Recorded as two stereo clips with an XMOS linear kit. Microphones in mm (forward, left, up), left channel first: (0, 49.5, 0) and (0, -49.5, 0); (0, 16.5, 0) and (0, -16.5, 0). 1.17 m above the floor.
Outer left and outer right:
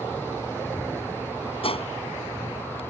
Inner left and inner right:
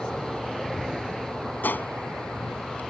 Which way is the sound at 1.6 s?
75° left (ahead or behind).